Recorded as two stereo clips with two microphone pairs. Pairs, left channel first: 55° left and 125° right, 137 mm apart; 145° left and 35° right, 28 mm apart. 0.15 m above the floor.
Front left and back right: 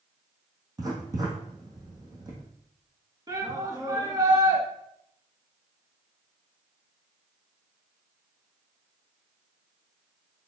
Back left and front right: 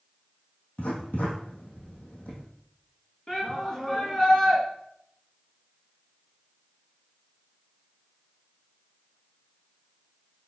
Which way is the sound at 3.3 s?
160° right.